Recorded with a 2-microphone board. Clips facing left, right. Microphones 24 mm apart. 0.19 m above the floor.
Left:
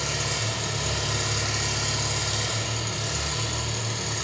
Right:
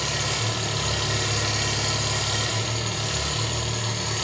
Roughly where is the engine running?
Right.